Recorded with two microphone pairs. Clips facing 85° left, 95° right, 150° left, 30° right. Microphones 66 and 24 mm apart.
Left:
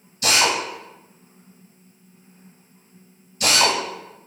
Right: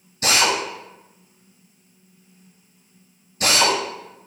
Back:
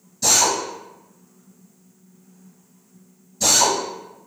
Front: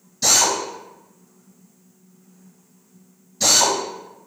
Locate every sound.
0.2 s a drill: 70° right, 1.5 m